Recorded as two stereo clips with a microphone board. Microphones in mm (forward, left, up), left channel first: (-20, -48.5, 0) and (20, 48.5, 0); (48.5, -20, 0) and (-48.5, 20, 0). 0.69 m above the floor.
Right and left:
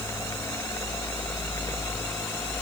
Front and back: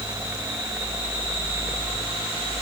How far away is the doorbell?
No doorbell in this recording.